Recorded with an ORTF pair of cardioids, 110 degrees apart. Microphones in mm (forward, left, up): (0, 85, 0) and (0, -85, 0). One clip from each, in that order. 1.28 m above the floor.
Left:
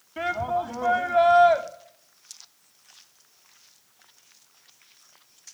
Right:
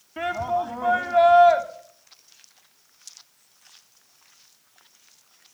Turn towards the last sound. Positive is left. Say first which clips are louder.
# right 1 dB
turn(degrees=0)